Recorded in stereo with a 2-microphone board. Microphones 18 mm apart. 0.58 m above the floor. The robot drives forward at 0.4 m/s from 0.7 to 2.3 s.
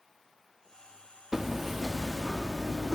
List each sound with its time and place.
1.3 s hammering: 20° right (ahead or behind), 0.7 m